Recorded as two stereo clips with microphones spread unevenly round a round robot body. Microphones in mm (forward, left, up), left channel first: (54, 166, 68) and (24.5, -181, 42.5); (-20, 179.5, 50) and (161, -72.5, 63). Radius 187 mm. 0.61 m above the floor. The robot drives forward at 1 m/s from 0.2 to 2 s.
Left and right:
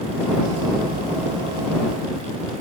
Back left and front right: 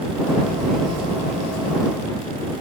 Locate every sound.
Only background noise.